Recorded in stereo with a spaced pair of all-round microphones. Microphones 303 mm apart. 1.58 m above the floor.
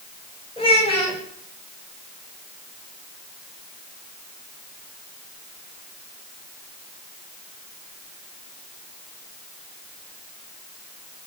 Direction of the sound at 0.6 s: 20° left (ahead or behind).